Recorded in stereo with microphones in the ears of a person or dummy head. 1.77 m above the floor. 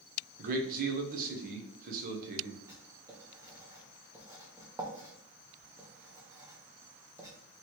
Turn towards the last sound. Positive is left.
turn(degrees=-15)  # may be behind; listen again after turning